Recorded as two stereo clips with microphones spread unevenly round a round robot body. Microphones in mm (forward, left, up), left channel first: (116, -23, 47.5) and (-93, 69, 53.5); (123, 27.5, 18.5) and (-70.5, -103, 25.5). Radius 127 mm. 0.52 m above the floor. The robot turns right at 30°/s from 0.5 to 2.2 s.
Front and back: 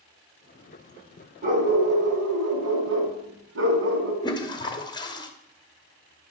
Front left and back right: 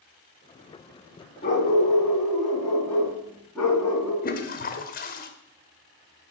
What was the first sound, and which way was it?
A dog barking, 95° left.